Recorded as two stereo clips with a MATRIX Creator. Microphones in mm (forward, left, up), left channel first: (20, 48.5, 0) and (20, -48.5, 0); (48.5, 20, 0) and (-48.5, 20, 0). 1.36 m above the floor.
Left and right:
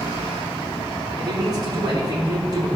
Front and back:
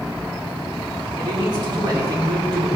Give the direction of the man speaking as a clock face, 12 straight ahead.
5 o'clock.